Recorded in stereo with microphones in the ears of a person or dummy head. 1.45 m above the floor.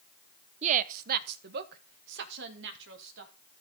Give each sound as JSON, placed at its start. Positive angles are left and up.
{"t": 0.6, "sound": "a woman speaking", "side_deg": -40, "distance_m": 0.5}